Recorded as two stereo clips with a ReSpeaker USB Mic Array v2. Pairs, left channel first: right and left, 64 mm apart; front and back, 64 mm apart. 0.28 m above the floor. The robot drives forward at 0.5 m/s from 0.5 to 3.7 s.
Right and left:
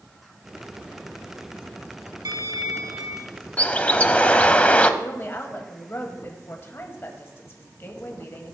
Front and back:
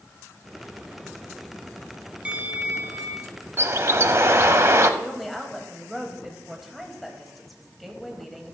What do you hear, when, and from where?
2.2 s a bell: 110° left, 0.9 m; by 3.4 s 135° left, 1.2 m
3.6 s a bird: 150° right, 0.6 m
5.0 s a woman speaking: 90° right, 1.4 m